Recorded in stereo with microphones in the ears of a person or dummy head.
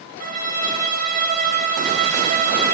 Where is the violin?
45° right (ahead or behind), 3 m.